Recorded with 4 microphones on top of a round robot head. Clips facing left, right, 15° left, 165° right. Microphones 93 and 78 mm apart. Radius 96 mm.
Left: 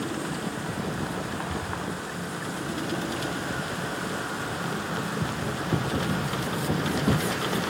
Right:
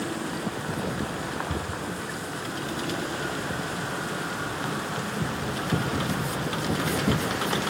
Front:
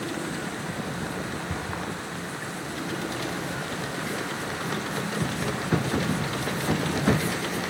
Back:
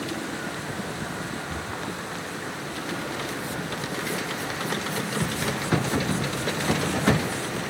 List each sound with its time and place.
1.5 s a cupboard door: 30° right, 3 m